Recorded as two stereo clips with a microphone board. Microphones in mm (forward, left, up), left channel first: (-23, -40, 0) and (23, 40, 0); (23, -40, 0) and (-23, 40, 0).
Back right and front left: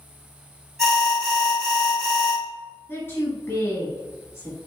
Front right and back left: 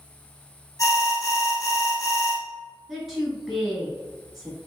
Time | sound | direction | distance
0.8 | an alarm | 35° right | 1.1 m
2.9 | a woman speaking | 155° right | 1.2 m